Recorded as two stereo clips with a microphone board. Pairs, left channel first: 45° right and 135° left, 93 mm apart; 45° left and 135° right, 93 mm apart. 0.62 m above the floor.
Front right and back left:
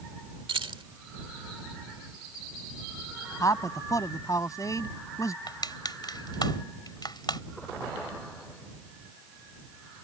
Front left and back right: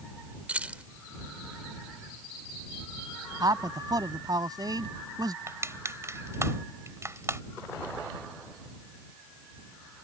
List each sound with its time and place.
0.5 s keys jangling: 150° left
3.4 s a man speaking: 95° right
5.5 s crushing: 80° right